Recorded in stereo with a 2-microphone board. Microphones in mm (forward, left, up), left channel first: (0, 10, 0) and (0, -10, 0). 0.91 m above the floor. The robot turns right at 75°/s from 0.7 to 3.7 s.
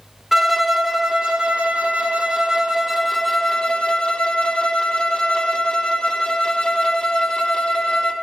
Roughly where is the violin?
Behind.